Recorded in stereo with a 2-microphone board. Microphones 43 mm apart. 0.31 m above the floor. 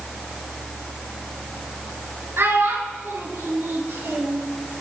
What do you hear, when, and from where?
2.4 s a child speaking: 70° right (ahead or behind), 2.5 m; by 4.4 s 60° right (ahead or behind), 3 m